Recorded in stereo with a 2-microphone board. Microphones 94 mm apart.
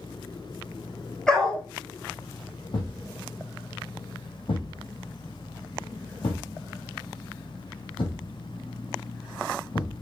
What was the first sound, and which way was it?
A dog barking, 5° left (ahead or behind).